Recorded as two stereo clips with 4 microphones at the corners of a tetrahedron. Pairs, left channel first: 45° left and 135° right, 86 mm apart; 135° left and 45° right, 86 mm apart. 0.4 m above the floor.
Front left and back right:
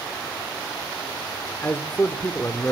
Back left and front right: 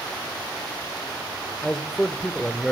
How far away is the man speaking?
About 0.9 m.